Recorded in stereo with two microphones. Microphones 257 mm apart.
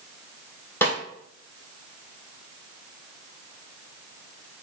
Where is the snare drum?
10° left (ahead or behind), 0.8 m.